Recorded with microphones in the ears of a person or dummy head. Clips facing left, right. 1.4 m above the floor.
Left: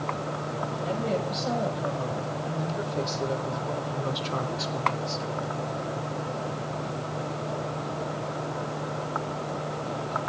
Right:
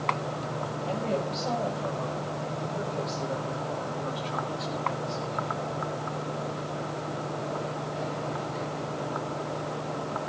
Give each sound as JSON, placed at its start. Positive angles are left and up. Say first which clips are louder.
{"t": 0.8, "sound": "a woman speaking", "louder": "left 1 dB", "side_deg": 20, "distance_m": 7.0}